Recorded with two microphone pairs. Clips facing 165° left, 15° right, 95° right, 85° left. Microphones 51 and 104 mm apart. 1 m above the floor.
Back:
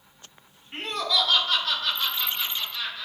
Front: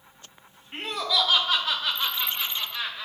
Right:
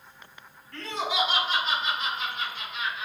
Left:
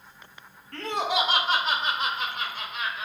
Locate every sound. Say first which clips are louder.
0.7 s laughter: even, left 3 dB; 75° left, 1.4 m; by 3.1 s 50° left, 2.5 m